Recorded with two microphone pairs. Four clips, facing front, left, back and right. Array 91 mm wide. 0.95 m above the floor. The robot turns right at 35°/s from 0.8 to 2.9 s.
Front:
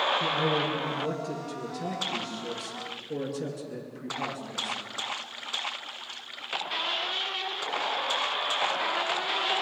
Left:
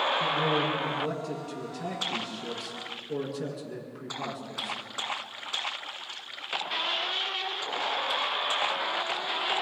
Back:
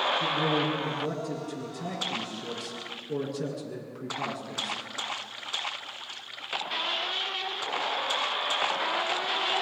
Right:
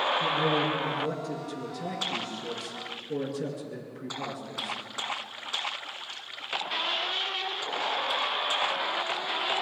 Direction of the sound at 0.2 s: 65° left.